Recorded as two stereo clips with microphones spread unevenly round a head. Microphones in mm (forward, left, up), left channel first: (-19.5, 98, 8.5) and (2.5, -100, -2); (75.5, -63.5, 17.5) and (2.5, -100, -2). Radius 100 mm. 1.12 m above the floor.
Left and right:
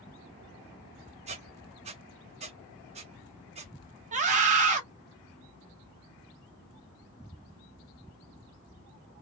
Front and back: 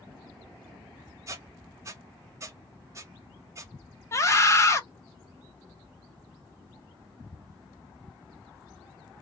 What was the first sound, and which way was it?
A squeak, 110° right.